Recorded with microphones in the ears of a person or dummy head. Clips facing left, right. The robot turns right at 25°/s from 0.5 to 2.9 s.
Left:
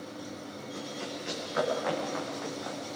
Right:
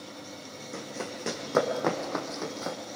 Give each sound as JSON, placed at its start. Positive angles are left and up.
{"t": 0.7, "sound": "running footsteps", "side_deg": -70, "distance_m": 3.5}